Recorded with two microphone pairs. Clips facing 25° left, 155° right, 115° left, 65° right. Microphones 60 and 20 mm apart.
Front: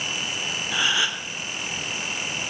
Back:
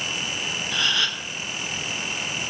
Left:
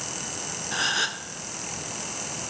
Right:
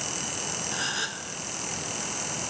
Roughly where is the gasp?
Left.